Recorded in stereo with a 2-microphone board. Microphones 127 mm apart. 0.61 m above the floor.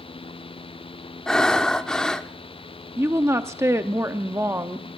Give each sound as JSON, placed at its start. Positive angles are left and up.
{"t": 1.3, "sound": "breathing", "side_deg": 5, "distance_m": 0.6}
{"t": 3.0, "sound": "a woman speaking", "side_deg": -20, "distance_m": 0.6}